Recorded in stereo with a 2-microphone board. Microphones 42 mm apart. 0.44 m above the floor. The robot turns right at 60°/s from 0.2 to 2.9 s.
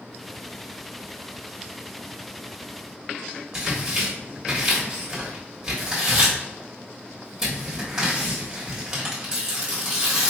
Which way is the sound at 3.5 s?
15° right (ahead or behind).